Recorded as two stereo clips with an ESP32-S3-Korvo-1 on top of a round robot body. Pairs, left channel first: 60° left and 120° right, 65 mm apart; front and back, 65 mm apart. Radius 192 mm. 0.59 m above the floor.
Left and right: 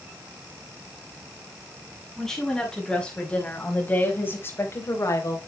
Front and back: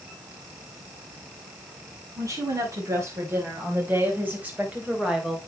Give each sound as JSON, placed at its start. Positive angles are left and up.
{"t": 2.2, "sound": "a woman speaking", "azimuth_deg": 145, "distance_m": 6.0}